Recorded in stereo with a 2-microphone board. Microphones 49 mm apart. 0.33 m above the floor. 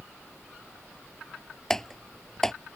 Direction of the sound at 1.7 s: 10° left (ahead or behind).